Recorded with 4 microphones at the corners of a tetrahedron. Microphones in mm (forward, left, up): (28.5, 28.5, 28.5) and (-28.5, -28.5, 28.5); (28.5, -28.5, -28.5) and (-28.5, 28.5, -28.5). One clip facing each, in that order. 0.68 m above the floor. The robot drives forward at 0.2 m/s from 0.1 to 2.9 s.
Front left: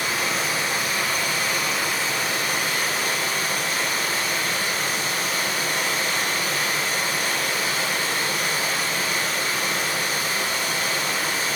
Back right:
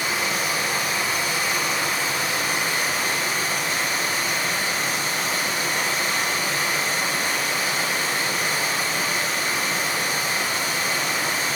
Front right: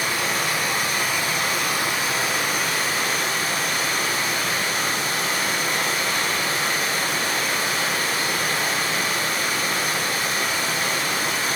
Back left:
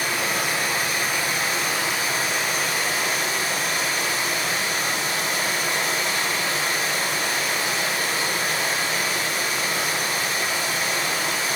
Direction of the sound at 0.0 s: 65° right.